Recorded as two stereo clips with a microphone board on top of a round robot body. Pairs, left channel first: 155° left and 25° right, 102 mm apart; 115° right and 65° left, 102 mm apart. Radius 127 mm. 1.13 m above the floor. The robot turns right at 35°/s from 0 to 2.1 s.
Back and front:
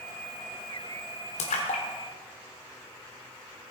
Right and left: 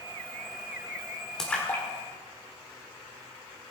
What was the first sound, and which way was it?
A splash, 160° left.